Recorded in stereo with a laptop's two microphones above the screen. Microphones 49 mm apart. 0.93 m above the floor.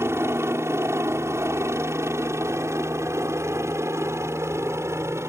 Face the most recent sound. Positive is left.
turn(degrees=-60)  # may be behind; listen again after turning